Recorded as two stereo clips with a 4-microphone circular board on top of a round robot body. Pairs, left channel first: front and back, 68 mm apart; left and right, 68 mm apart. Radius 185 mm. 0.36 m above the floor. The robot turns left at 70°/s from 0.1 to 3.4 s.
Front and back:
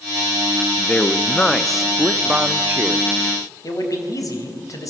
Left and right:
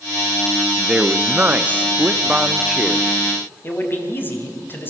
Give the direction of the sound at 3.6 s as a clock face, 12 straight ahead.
11 o'clock.